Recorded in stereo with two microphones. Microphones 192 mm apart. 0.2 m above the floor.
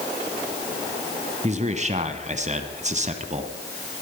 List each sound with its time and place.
1.4 s a man speaking: 35° right (ahead or behind), 1.4 m